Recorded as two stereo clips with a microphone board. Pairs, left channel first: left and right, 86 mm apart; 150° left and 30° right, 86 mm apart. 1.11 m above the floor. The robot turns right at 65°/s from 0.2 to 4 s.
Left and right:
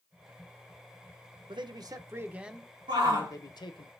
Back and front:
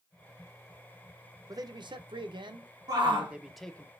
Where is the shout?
70° right, 1.2 m; by 3.3 s 40° right, 1.2 m.